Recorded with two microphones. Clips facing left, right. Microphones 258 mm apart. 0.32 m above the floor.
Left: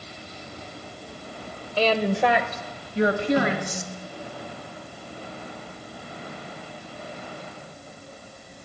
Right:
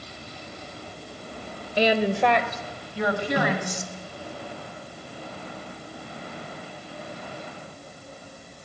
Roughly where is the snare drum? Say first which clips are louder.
Left 1 dB; right.